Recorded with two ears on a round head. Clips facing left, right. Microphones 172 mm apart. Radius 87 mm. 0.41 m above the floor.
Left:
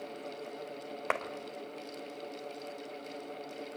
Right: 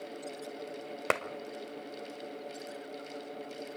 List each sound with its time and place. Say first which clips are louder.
1.1 s a clap: right 3 dB; 45° right (ahead or behind), 1.3 m